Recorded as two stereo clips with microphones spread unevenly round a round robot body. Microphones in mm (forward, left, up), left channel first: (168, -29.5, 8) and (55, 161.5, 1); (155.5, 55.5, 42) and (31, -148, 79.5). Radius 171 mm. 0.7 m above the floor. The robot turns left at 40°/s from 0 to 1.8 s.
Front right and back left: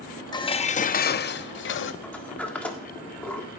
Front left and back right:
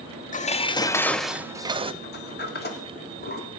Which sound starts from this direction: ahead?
Dishes clattering, at 0.3 s.